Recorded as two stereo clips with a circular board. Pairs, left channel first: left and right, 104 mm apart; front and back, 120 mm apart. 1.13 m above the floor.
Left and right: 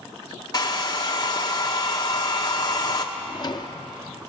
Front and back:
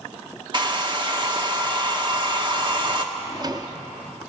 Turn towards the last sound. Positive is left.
turn(degrees=130)